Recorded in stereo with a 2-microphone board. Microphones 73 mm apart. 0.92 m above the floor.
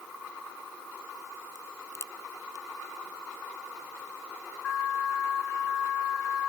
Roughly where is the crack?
Left.